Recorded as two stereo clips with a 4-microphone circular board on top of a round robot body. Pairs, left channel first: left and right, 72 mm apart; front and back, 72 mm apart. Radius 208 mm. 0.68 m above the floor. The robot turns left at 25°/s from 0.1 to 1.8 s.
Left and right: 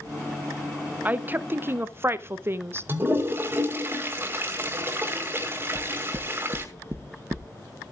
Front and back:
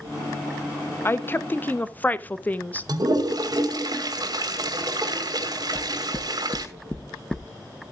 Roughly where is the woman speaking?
Ahead right.